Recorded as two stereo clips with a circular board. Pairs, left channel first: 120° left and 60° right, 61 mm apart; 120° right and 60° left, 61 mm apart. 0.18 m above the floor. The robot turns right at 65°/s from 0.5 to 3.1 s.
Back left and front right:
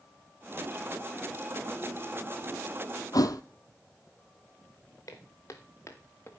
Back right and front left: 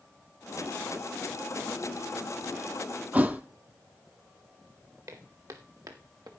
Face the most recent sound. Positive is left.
turn(degrees=70)